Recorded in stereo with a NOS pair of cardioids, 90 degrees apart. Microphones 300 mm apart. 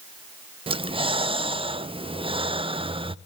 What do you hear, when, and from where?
0.7 s breathing: 20° right, 0.6 m